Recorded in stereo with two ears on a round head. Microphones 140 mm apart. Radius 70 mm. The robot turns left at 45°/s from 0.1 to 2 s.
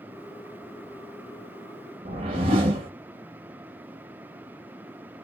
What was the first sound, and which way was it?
A whoosh, 40° right (ahead or behind).